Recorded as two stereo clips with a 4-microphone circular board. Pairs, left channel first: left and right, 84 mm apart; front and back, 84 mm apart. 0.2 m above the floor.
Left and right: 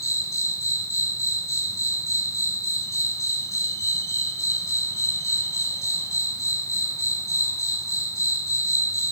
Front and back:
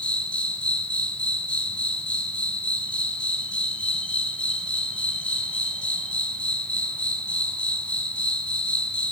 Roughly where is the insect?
Left.